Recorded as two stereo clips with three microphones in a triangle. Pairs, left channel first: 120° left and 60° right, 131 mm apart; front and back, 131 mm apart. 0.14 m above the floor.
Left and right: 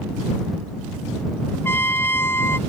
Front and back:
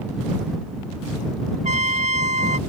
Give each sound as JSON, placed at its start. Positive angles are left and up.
{"t": 1.6, "sound": "a trumpet", "azimuth_deg": -170}